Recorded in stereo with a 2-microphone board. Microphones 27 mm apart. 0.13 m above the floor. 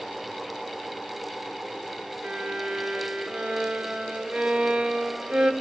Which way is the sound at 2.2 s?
45° right (ahead or behind).